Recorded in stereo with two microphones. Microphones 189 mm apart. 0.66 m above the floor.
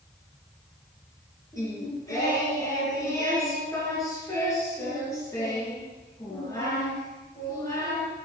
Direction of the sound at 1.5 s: 20° left (ahead or behind).